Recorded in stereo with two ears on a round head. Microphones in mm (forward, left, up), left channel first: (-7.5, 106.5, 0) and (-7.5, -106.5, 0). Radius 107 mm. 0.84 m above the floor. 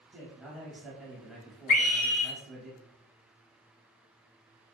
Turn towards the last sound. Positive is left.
turn(degrees=35)  # may be behind; listen again after turning